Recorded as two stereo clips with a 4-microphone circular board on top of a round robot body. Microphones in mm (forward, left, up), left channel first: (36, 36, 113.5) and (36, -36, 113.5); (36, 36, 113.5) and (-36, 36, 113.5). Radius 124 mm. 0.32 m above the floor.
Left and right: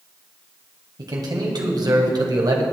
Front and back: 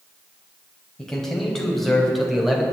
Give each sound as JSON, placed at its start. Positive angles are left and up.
{"t": 1.0, "sound": "a man speaking", "azimuth_deg": -80, "distance_m": 3.0}